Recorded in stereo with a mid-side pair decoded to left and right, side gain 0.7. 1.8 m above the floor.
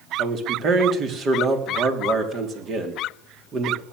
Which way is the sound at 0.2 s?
40° right.